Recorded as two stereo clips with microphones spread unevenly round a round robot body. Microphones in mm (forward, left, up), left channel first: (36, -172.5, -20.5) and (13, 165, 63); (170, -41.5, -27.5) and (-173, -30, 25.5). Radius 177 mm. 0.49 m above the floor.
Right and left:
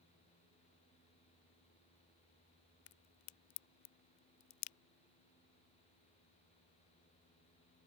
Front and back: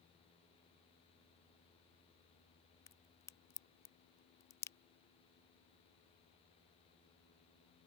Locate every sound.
2.9 s a crack: 85° right